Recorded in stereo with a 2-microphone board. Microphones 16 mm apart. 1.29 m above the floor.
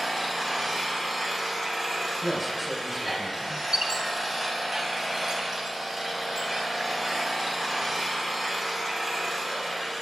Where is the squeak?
45° right (ahead or behind), 2.5 m.